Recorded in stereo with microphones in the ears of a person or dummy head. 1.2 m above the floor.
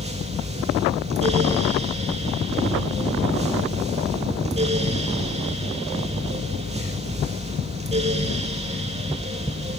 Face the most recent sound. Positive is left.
turn(degrees=-30)  # may be behind; listen again after turning